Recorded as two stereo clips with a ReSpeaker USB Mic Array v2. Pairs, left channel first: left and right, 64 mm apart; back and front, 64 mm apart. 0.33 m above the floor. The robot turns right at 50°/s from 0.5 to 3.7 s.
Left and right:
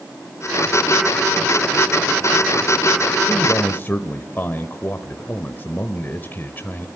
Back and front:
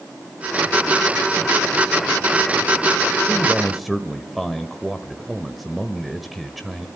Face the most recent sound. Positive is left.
turn(degrees=90)